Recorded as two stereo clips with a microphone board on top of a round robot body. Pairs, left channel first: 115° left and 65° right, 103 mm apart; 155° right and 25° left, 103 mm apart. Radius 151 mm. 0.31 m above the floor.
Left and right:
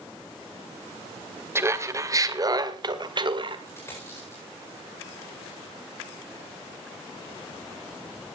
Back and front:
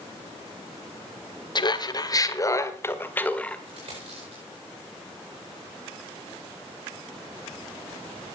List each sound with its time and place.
1.6 s laughter: 125° right, 2.0 m; by 3.6 s 80° right, 1.9 m
3.7 s a dropped coin: 50° left, 8.5 m